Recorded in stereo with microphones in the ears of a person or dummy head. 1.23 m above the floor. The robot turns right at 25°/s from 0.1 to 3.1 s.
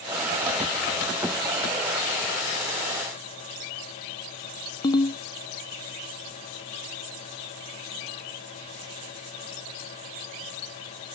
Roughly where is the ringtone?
Left.